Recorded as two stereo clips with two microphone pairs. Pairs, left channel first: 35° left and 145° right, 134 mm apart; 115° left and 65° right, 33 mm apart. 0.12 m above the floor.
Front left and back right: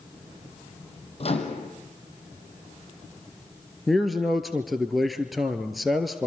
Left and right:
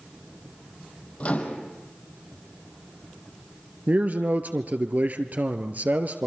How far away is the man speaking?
About 1.8 m.